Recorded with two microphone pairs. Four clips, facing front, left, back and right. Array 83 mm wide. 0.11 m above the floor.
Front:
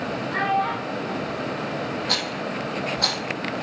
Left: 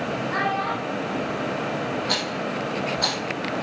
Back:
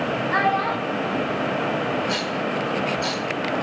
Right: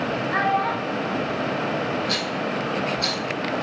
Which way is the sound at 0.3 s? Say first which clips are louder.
Right 4 dB, back 1 dB; 175° right.